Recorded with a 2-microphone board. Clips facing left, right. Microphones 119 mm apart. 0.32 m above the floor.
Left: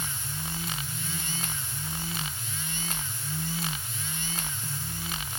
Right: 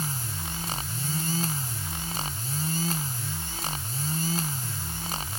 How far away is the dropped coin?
I don't hear a dropped coin.